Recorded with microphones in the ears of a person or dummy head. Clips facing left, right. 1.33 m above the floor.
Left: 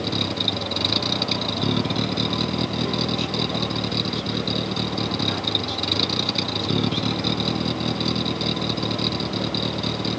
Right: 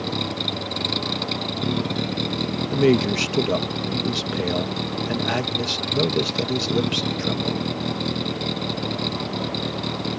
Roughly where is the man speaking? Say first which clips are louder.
Right 7 dB; right.